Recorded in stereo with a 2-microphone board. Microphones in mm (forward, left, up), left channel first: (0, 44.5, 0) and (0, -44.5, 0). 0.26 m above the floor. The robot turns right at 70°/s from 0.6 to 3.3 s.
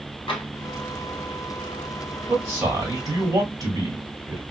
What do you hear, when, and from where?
0.3 s tapping: 75° left (ahead or behind), 1.1 m
2.3 s a man speaking: 175° right, 2 m; by 4.4 s 105° right, 2 m